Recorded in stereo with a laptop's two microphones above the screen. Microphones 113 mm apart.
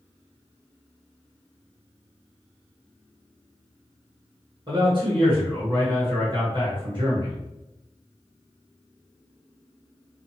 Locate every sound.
4.7 s a man speaking: 45° right (ahead or behind), 1.0 m